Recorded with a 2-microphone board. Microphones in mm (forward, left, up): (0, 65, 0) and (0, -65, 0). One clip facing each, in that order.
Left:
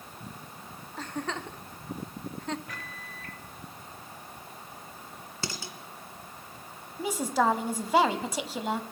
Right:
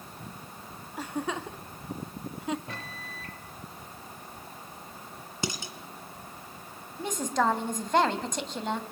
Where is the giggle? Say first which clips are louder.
Right 2 dB; 10° right (ahead or behind), 0.7 m.